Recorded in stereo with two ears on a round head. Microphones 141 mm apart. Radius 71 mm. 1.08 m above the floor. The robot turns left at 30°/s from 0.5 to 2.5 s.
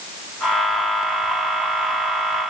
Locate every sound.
Only background noise.